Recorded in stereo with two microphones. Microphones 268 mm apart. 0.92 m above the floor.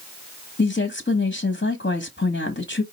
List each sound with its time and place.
0.6 s a woman speaking: 45° left (ahead or behind), 1.0 m